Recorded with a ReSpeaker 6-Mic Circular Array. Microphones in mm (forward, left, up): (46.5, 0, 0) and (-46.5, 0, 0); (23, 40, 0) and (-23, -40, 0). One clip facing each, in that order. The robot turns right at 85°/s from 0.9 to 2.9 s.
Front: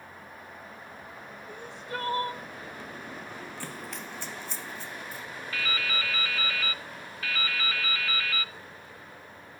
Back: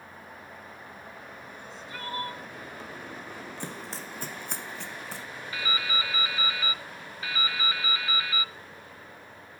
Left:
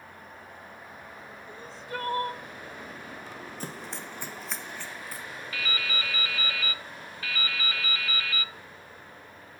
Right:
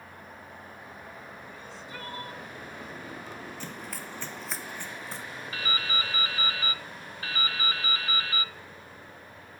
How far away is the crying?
About 0.6 m.